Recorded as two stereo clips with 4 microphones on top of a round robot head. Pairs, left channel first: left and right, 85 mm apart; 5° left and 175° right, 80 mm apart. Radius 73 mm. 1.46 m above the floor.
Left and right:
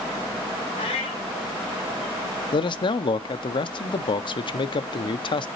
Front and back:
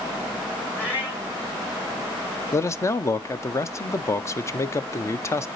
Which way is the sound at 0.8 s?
70° left.